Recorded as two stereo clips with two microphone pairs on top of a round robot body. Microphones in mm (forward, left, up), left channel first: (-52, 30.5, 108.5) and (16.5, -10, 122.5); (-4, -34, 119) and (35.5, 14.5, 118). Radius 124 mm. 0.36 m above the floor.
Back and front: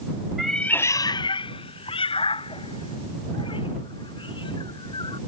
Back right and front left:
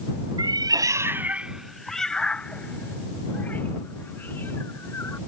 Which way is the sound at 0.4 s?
55° left.